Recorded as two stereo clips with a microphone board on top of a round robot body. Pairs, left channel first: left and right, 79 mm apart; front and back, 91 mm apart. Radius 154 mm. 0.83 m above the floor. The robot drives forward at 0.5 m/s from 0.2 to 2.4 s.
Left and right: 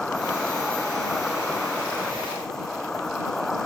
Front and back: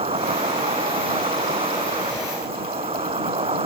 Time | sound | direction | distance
0.0 | an insect | 175° left | ?